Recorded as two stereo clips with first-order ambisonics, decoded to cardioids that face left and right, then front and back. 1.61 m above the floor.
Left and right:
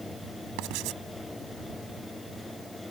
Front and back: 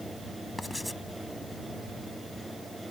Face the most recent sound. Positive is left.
turn(degrees=-85)